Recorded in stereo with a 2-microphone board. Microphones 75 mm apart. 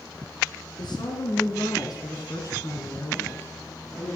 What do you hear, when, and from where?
0.8 s a woman speaking: 70° left (ahead or behind), 2.5 m; by 4.2 s 20° left (ahead or behind), 2.5 m